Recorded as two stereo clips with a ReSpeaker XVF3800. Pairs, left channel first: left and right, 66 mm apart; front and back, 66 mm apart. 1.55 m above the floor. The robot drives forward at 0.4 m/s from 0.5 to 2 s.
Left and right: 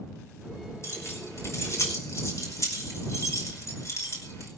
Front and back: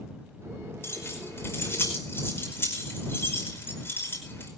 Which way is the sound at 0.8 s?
50° left.